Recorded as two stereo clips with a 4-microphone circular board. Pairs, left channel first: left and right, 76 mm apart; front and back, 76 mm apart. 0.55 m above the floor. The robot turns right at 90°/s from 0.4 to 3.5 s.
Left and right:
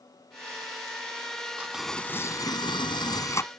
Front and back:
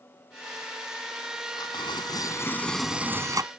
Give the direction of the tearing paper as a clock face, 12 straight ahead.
1 o'clock.